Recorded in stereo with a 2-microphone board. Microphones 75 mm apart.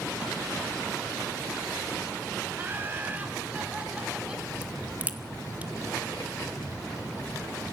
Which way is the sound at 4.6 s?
25° right (ahead or behind).